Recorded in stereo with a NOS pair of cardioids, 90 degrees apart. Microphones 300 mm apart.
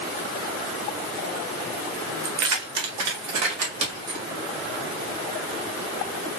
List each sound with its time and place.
2.2 s keys jangling: 65° right, 1.4 m